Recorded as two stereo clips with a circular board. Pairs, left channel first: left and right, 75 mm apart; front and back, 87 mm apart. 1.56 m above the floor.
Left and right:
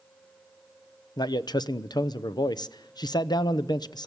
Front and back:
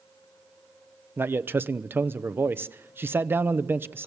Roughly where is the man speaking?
Behind left.